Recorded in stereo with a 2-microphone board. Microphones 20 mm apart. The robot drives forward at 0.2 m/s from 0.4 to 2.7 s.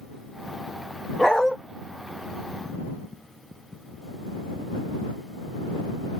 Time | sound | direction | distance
1.2 | a dog barking | 20° left (ahead or behind) | 0.9 m